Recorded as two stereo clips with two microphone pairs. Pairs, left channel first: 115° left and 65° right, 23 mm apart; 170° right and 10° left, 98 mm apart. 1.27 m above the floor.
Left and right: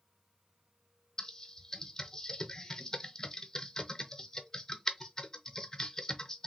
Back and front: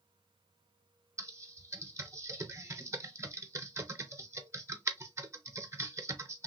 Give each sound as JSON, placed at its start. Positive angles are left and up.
{"t": 1.2, "sound": "typing on a keyboard", "azimuth_deg": 60, "distance_m": 0.6}